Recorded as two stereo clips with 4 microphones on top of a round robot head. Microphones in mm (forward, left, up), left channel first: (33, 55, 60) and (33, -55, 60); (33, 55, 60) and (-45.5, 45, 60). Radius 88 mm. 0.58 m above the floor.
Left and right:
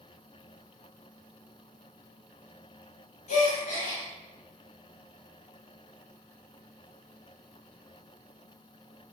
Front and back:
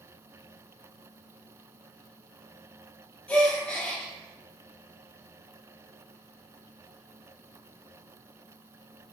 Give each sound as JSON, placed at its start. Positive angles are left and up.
{"t": 3.3, "sound": "a gasp", "azimuth_deg": 80, "distance_m": 7.0}